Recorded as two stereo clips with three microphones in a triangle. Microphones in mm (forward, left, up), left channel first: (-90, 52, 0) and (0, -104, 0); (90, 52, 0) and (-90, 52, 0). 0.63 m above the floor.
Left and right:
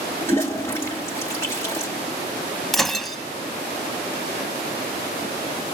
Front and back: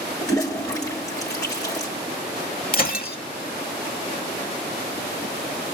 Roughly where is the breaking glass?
Ahead left.